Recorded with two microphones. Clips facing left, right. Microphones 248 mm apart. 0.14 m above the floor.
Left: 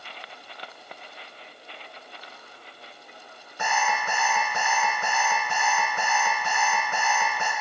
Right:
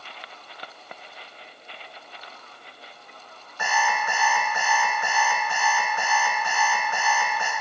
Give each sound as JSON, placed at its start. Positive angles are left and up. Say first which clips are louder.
{"t": 3.6, "sound": "an alarm clock", "louder": "right 1 dB", "side_deg": 30, "distance_m": 4.0}